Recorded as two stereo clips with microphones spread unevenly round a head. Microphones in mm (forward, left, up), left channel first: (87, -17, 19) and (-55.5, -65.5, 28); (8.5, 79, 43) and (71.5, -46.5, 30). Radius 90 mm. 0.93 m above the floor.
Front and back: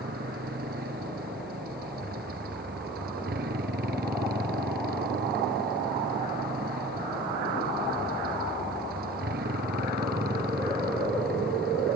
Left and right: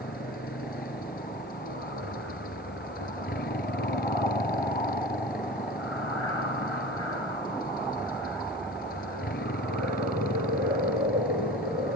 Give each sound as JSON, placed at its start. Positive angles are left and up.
{"t": 0.0, "sound": "a motorcycle", "azimuth_deg": 155}